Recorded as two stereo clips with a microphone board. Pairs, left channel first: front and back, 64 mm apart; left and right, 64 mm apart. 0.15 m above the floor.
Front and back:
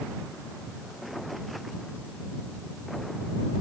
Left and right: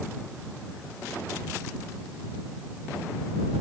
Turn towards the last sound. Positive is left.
No sound to turn to.